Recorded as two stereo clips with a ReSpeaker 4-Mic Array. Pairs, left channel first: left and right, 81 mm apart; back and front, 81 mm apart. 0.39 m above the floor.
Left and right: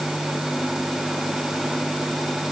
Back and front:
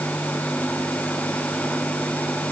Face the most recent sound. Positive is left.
No sound to turn to.